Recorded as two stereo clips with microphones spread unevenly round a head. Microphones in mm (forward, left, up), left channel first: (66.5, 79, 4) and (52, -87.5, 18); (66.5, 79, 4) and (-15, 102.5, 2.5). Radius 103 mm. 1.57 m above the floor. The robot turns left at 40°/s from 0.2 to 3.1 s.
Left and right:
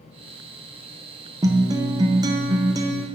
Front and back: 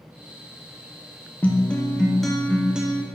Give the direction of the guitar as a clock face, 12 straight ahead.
2 o'clock.